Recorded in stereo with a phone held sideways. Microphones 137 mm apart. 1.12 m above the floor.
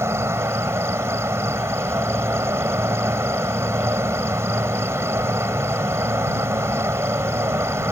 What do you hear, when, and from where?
0.0 s an insect: 20° right (ahead or behind)